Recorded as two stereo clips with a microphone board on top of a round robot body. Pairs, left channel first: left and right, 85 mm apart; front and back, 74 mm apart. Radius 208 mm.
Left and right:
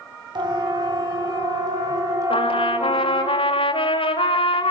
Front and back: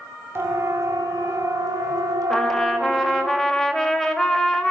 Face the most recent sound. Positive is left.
turn(degrees=85)